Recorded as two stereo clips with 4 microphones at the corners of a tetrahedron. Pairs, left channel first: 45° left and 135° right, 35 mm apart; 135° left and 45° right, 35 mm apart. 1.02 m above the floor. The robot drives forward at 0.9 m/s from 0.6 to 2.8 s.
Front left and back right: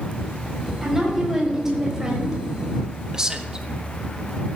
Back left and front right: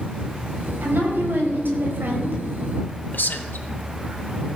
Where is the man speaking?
155° left, 1.4 m.